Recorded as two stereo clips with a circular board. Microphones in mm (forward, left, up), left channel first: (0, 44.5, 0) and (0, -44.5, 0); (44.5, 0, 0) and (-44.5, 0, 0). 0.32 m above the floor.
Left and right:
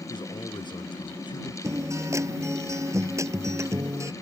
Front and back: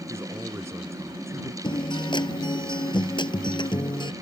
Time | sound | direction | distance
0.1 | a man speaking | 120° left | ?
1.6 | a guitar | 35° right | ?